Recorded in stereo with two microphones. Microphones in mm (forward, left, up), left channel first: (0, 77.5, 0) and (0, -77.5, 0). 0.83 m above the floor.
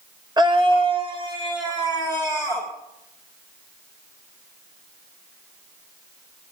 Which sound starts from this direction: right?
A scream, at 0.4 s.